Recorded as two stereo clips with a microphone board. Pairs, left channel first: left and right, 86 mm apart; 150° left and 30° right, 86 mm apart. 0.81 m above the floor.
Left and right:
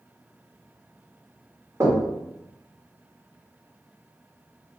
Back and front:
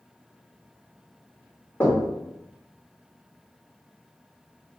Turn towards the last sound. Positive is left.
turn(degrees=-145)